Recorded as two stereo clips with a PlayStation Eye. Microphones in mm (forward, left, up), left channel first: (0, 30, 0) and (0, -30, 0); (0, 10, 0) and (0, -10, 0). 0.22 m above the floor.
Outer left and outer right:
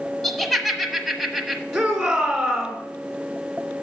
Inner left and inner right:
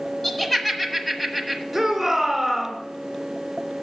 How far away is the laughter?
About 1.2 m.